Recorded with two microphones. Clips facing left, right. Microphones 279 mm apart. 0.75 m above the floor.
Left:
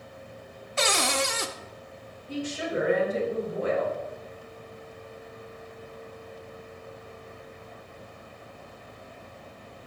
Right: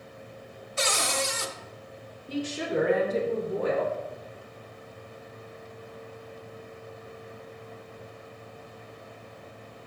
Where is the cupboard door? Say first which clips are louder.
Left 3 dB; 70° left (ahead or behind), 0.8 m.